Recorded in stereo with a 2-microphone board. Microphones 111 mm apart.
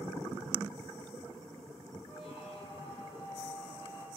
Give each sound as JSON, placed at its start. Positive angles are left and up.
{"t": 2.1, "sound": "a squeak", "side_deg": 75, "distance_m": 2.5}